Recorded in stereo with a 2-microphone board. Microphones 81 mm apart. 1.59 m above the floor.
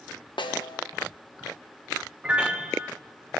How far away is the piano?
About 1.1 m.